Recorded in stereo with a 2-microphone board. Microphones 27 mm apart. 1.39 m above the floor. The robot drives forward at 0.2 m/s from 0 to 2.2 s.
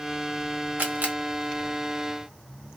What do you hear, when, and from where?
0.8 s a camera shutter: 85° right, 0.8 m; by 1.1 s 80° right, 0.8 m